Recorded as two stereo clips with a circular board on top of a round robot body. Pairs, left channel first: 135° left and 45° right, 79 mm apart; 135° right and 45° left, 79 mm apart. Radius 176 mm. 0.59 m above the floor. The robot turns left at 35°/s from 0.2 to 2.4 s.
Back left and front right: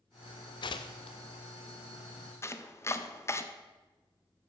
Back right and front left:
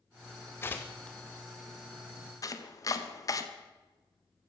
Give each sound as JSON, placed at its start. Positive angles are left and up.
{"t": 0.6, "sound": "tearing paper", "azimuth_deg": 165, "distance_m": 0.7}
{"t": 2.4, "sound": "chopping", "azimuth_deg": -175, "distance_m": 1.4}